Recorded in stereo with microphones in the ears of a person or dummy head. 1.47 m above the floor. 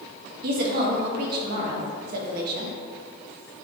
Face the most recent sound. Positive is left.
turn(degrees=-55)  # may be behind; listen again after turning